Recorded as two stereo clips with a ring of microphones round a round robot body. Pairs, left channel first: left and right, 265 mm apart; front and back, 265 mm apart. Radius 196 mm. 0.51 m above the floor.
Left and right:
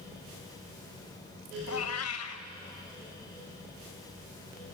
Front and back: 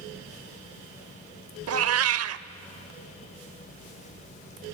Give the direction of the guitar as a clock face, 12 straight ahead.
I don't hear a guitar.